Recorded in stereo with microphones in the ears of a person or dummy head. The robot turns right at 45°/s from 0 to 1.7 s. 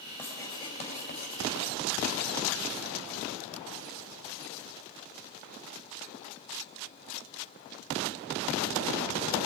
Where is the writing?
5° left, 3 m; by 1.8 s 75° left, 3 m.